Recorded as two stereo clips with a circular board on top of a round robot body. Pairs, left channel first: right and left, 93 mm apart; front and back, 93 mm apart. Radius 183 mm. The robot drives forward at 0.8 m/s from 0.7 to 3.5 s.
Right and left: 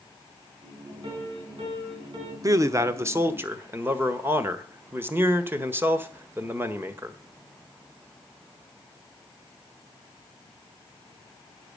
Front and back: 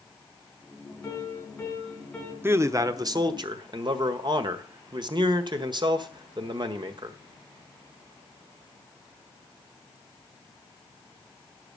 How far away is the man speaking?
About 1.2 m.